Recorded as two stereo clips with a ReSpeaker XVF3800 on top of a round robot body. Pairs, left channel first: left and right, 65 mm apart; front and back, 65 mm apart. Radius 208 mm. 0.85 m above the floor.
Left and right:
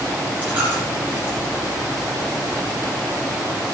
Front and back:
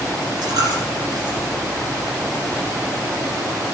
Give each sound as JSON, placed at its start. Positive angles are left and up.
{"t": 0.4, "sound": "a dropped coin", "azimuth_deg": -160, "distance_m": 2.0}